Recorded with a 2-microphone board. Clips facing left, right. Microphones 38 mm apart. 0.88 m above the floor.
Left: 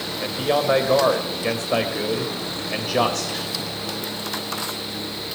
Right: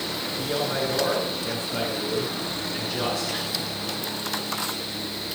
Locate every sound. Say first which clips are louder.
0.2 s a man speaking: left 8 dB; 85° left, 3 m